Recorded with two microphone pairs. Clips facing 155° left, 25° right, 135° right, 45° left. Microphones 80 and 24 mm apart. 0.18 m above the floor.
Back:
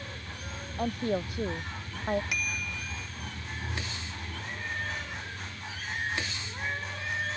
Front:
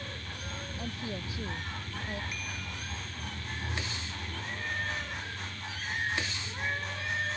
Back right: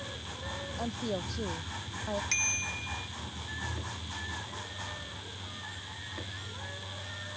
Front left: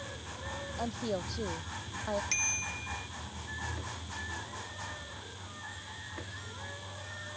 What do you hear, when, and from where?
0.8 s a woman speaking: 125° left
2.3 s a bicycle bell: 140° left